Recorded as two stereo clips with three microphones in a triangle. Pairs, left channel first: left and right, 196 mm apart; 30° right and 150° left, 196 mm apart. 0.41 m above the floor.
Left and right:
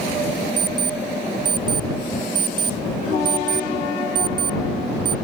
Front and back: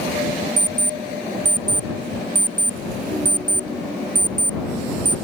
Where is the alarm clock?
155° right.